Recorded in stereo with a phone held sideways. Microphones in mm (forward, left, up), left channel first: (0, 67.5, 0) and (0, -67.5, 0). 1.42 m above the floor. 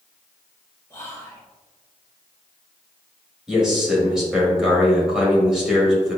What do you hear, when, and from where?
0.9 s whispering: 25° left (ahead or behind), 0.7 m
3.5 s a man speaking: 5° right (ahead or behind), 1.6 m